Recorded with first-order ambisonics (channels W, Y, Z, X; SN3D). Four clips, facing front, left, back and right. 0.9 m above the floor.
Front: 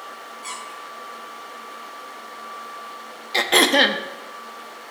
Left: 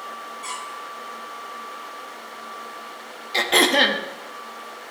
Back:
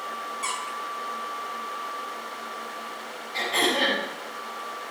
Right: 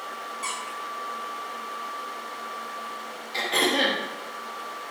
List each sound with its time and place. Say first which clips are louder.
0.4 s a squeak: even, back 2 dB; 140° right, 5.5 m
3.3 s throat clearing: left 6 dB, front 8 dB; 30° left, 0.9 m